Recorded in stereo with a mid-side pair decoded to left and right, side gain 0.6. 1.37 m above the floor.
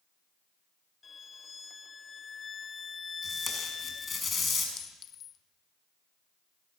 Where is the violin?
25° left, 0.8 m.